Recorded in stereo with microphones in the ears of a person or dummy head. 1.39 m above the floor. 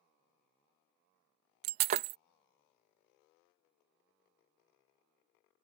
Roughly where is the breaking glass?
Right.